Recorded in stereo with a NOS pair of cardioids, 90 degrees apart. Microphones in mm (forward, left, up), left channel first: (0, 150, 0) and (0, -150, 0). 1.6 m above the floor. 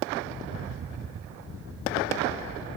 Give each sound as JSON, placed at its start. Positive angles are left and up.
{"t": 0.4, "sound": "a rattle", "azimuth_deg": -45}